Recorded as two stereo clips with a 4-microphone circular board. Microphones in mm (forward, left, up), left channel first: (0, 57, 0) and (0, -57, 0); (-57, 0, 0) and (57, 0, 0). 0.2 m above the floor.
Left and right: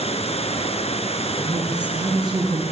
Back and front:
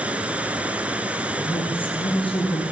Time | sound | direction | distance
0.0 | running water | 80° left | 1.3 m
1.4 | a woman speaking | 140° right | 5.5 m